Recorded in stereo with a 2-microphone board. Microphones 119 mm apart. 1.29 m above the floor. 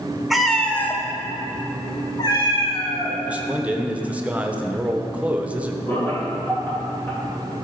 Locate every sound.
0.3 s a cat meowing: centre (ahead or behind), 0.7 m; by 3.2 s 40° left (ahead or behind), 1.5 m
3.2 s a man speaking: 10° right (ahead or behind), 0.8 m
5.9 s laughter: 20° left (ahead or behind), 2.5 m